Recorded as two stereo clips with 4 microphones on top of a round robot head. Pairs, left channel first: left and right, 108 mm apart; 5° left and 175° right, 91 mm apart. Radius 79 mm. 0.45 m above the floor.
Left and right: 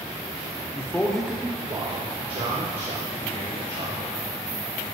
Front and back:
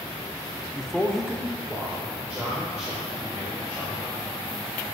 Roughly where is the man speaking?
Left.